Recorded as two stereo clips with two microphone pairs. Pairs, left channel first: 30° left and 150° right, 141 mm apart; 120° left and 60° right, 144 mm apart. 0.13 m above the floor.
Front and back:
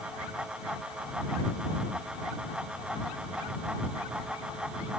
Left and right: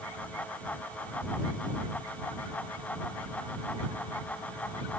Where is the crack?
No crack in this recording.